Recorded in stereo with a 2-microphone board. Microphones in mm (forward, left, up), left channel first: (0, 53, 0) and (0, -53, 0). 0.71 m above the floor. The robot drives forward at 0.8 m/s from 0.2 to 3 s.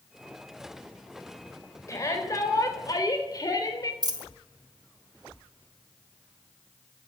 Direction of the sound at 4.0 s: 40° right (ahead or behind).